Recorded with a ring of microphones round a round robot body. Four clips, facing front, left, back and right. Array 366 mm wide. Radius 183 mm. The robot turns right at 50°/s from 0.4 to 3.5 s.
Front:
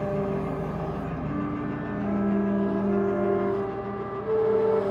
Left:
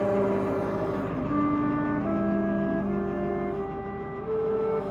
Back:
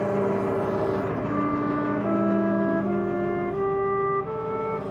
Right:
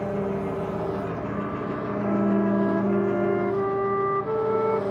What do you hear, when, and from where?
0.0 s an engine running: 155° left, 0.7 m; by 4.9 s 50° right, 0.7 m
1.3 s a flute: 125° left, 0.5 m; by 4.8 s 125° right, 0.5 m